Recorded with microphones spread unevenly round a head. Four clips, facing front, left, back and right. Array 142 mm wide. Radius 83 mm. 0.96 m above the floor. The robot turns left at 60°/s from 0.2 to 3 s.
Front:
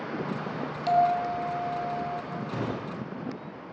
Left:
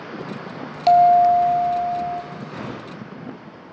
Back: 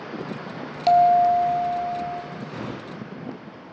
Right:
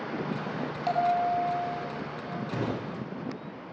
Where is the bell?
150° left, 1.2 m; by 2.2 s 70° left, 1.2 m.